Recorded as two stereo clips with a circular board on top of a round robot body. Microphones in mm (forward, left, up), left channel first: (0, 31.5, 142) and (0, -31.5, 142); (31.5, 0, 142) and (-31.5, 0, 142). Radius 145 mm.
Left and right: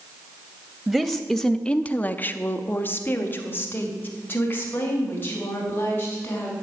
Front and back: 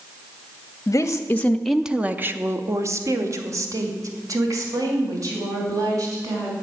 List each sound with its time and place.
0.9 s a woman speaking: 15° right, 1.0 m; by 6.5 s 150° left, 4.5 m